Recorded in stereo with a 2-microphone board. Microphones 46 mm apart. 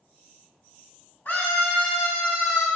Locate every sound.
1.2 s a scream: 55° left (ahead or behind), 3.5 m; by 2.7 s 80° left, 2 m